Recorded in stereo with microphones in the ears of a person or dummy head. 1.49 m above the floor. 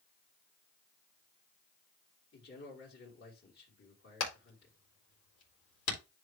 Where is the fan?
I don't hear a fan.